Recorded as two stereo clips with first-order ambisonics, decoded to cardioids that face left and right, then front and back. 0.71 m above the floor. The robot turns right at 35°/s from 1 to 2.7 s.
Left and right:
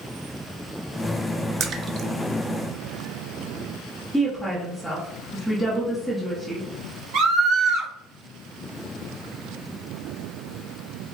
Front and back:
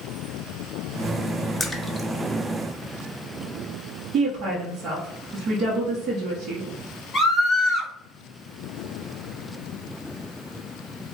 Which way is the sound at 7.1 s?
75° right.